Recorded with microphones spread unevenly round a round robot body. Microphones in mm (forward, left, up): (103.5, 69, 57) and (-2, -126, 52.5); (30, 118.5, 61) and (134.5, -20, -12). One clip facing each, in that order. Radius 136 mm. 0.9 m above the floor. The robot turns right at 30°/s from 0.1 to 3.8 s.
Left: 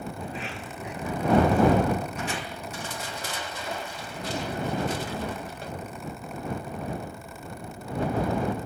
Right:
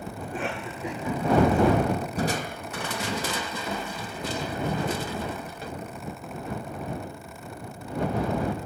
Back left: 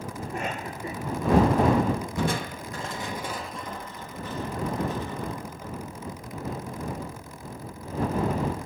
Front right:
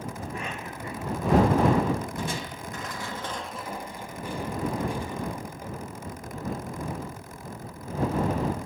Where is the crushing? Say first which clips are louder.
Right 5 dB, back left 5 dB; straight behind; by 5.7 s 130° right.